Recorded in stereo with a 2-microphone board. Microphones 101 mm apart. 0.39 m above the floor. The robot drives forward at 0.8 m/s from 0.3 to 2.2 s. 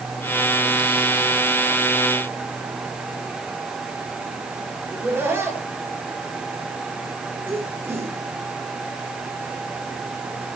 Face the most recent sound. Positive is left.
turn(degrees=-20)  # may be behind; listen again after turning